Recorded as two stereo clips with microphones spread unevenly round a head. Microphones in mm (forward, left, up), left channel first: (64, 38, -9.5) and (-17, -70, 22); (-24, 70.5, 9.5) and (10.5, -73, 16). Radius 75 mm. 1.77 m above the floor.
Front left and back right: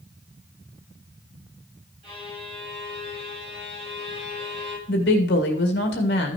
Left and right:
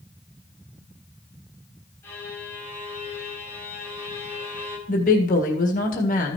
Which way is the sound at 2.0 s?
175° left.